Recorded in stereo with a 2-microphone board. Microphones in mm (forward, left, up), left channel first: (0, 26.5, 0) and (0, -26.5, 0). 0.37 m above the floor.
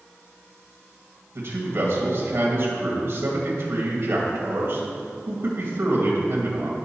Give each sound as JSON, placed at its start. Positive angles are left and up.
{"t": 1.4, "sound": "a man speaking", "side_deg": -55, "distance_m": 2.0}